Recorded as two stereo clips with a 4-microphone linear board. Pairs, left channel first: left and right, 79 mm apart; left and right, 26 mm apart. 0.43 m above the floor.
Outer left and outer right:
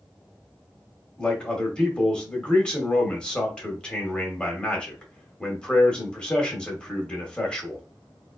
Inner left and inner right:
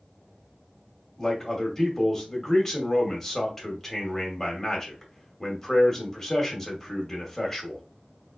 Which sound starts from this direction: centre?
A man speaking, at 1.2 s.